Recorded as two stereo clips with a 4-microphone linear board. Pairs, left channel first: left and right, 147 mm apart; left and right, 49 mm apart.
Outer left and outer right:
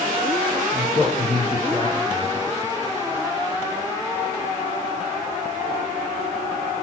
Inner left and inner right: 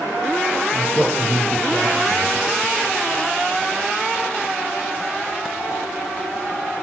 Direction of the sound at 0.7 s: 10° left (ahead or behind).